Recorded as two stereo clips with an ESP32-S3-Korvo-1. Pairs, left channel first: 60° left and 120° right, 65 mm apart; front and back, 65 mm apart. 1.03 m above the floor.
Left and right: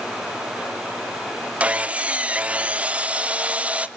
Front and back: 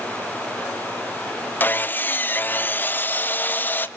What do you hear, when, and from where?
1.6 s sawing: 55° right, 0.8 m